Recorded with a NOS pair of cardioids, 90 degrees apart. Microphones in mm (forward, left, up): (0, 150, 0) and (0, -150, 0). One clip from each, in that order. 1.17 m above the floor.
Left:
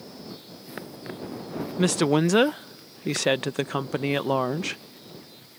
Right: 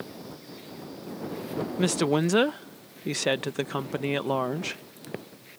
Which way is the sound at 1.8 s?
15° left.